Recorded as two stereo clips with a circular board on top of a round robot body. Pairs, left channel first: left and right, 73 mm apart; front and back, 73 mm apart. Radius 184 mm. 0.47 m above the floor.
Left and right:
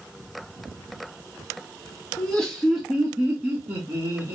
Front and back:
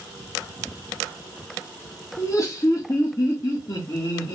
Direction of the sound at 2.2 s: 20° left.